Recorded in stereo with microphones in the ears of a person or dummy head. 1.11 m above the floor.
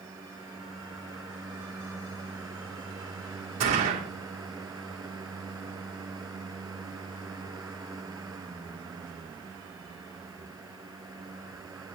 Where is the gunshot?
45° right (ahead or behind), 3.5 m.